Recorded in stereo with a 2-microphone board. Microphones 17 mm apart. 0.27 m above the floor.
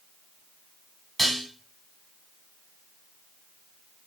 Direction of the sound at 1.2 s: 10° left (ahead or behind).